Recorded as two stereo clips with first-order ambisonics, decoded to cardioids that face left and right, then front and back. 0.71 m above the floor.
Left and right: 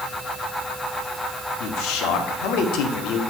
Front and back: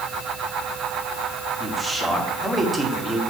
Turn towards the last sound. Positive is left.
turn(degrees=95)